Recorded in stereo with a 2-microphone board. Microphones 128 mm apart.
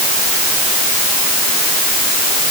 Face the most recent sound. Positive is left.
No sound to turn to.